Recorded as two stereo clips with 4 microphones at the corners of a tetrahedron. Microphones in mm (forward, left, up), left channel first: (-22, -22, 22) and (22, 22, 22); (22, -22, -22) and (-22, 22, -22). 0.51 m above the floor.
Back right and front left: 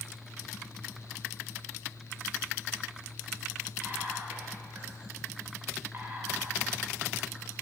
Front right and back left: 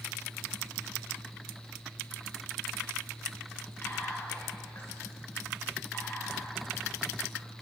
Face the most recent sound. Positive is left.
turn(degrees=-10)